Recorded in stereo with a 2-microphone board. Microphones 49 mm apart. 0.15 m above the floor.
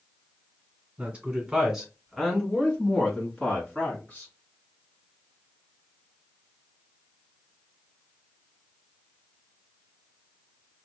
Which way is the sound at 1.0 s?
25° right (ahead or behind).